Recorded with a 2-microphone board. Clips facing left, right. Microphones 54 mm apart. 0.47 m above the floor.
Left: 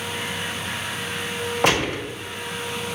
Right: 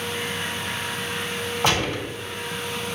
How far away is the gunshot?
About 1.4 m.